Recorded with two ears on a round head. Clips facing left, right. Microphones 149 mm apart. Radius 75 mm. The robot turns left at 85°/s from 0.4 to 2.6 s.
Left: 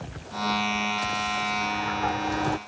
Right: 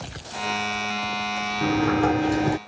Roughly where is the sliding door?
Right.